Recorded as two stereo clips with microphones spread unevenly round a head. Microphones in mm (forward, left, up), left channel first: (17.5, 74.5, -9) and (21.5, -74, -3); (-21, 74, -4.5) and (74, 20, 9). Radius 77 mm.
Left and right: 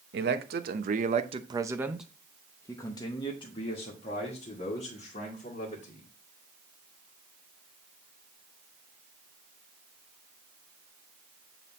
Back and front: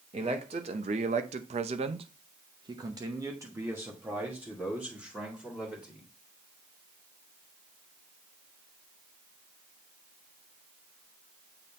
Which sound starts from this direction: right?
A man speaking, at 0.1 s.